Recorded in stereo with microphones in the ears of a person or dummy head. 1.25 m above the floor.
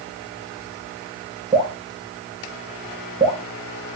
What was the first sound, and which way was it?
Dripping, 15° right (ahead or behind).